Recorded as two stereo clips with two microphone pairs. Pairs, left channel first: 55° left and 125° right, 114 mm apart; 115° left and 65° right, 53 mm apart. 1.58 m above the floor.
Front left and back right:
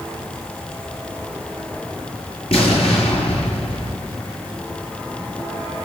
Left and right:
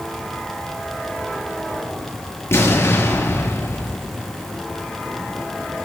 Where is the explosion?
80° left, 6.5 m.